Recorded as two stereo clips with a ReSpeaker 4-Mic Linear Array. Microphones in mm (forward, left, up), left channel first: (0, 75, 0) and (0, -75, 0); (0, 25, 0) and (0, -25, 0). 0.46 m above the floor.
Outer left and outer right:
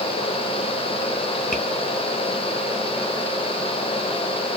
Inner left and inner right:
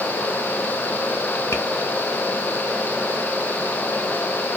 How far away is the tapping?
About 1.2 m.